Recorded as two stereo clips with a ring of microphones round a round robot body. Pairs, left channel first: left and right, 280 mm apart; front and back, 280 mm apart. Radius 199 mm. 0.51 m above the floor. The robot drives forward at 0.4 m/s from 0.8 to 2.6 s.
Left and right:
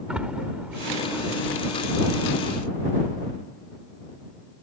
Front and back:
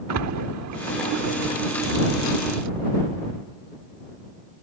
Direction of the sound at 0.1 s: 175° right.